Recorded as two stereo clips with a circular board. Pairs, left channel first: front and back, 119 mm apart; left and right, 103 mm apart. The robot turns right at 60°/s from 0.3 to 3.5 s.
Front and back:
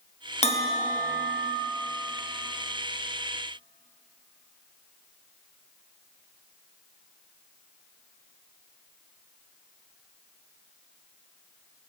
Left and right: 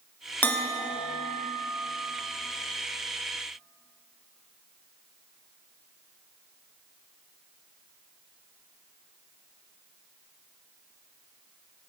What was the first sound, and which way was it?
A bell, 20° left.